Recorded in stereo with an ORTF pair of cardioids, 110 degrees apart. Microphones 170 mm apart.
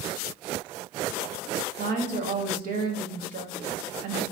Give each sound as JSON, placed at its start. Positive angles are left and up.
{"t": 1.8, "sound": "a woman speaking", "azimuth_deg": -55, "distance_m": 0.8}